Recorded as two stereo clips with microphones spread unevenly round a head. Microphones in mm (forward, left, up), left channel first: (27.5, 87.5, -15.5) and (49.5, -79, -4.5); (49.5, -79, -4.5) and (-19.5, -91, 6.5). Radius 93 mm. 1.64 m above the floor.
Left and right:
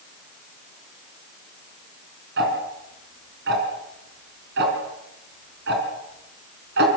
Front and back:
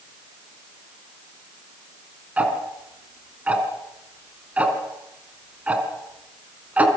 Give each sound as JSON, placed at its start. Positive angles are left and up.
{"t": 2.4, "sound": "ticking", "azimuth_deg": -105, "distance_m": 4.5}